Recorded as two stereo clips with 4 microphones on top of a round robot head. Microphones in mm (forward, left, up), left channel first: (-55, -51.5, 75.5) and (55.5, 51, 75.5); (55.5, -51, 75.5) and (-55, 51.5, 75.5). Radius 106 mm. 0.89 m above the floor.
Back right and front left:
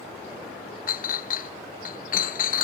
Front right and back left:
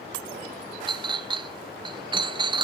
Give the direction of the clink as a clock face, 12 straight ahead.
5 o'clock.